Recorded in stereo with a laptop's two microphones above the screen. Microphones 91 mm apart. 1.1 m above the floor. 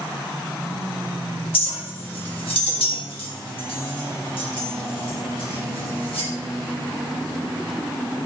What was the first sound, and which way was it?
A clink, 85° left.